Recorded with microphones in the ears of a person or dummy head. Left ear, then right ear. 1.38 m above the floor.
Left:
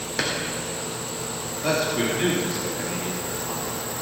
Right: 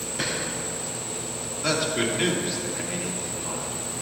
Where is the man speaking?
30° right (ahead or behind), 3 m.